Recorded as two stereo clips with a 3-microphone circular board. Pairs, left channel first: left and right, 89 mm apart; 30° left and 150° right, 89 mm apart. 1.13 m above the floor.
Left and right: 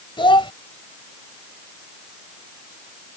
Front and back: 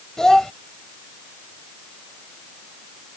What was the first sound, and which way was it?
A child speaking, 115° left.